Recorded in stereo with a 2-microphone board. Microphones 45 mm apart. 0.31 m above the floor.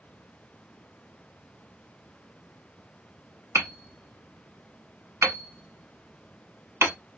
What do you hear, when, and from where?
3.5 s hammering: 80° right, 0.8 m